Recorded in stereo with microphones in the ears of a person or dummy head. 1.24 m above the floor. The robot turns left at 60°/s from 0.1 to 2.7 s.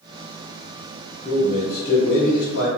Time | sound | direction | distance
1.2 | a man speaking | 145° left | 1.4 m